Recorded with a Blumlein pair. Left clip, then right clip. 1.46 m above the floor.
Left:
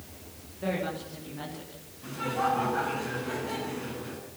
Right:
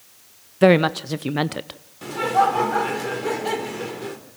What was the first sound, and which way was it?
A woman speaking, 50° right.